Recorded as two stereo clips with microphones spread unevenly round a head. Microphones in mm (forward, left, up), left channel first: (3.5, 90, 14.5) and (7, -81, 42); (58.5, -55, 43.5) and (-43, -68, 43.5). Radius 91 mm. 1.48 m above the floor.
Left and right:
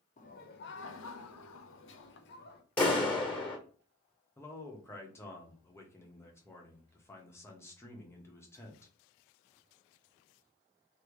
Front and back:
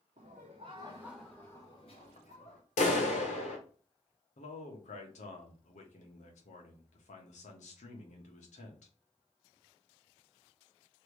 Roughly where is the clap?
Ahead.